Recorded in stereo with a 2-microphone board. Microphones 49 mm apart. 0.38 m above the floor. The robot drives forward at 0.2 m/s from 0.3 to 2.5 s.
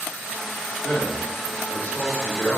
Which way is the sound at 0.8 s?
35° left (ahead or behind).